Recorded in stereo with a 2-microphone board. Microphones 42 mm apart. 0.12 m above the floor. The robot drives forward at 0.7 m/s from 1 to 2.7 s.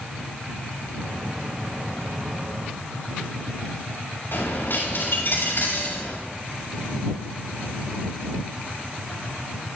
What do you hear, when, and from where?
4.3 s a dropped coin: 65° left (ahead or behind), 8 m